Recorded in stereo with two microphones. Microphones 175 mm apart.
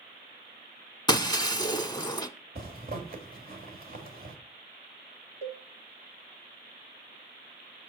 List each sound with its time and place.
1.1 s breaking glass: 20° left (ahead or behind), 0.6 m
2.5 s a zipper: 55° right (ahead or behind), 1.6 m
5.4 s a cowbell: 35° right (ahead or behind), 1.3 m